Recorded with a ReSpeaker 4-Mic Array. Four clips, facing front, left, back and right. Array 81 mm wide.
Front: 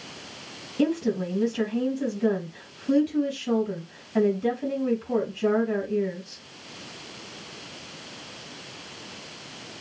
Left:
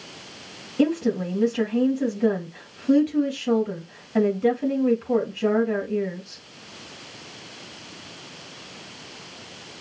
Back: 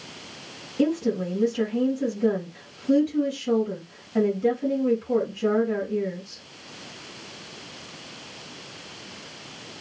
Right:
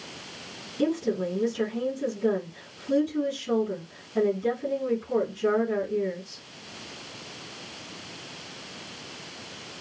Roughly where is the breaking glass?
No breaking glass in this recording.